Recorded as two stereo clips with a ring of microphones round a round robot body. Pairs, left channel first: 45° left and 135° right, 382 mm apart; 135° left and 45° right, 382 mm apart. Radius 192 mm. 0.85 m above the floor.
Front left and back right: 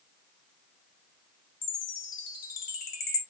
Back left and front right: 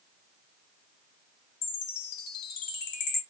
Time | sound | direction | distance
1.6 | a chime | 115° left | 1.5 m